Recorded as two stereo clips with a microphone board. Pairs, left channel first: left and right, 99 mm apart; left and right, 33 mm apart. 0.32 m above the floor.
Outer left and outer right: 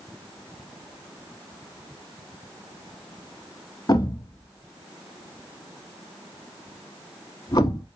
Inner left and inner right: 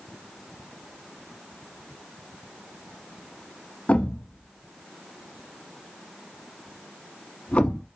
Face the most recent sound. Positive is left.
turn(degrees=45)  # may be behind; listen again after turning